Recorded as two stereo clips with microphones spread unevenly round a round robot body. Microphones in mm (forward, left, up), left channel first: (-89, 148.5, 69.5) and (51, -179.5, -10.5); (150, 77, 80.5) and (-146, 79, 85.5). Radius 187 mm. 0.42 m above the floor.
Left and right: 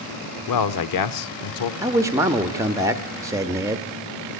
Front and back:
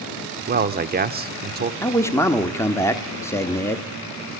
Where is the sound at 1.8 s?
60° right, 1.1 m.